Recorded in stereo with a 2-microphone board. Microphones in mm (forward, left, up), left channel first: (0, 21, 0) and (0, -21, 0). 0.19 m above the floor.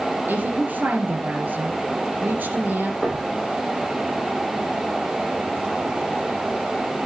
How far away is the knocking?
About 6.5 m.